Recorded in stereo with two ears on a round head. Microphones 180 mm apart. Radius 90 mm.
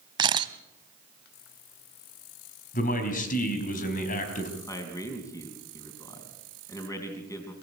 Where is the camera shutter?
25° right (ahead or behind), 0.7 m.